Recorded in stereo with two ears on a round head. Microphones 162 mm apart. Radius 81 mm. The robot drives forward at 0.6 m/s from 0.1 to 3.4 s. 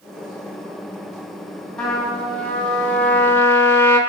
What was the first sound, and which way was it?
A trumpet, 5° left (ahead or behind).